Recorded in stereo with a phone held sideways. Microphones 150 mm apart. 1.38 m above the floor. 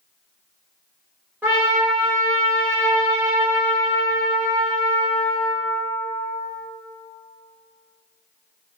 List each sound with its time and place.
1.4 s a trumpet: 10° right (ahead or behind), 1.2 m